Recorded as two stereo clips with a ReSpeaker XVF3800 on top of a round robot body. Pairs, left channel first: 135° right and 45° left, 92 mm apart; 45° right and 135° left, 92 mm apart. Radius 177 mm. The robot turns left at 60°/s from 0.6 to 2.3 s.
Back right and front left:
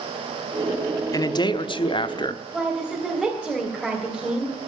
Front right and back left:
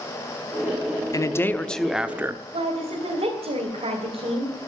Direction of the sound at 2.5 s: 140° left.